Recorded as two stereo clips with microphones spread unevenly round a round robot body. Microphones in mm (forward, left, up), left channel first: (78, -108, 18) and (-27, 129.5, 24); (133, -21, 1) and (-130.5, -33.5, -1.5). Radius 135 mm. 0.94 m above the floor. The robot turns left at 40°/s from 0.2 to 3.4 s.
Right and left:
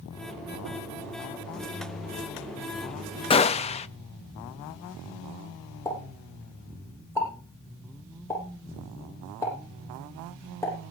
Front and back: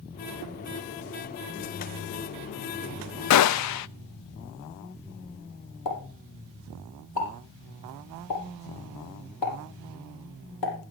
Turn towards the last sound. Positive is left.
turn(degrees=15)